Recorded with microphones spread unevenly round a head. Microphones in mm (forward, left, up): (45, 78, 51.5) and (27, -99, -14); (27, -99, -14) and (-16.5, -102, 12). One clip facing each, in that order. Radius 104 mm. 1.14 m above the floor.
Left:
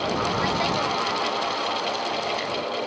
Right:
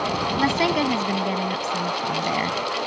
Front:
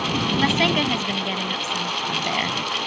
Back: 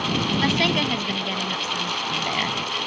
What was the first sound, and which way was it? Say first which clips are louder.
A woman speaking: right 4 dB, front 2 dB; 80° right.